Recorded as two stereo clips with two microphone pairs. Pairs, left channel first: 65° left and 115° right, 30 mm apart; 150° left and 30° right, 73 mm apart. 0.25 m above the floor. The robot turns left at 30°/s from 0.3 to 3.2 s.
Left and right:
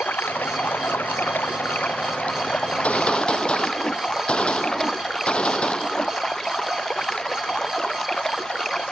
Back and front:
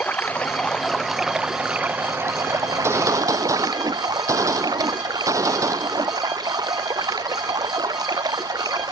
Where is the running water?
80° left; by 8.9 s 5° right.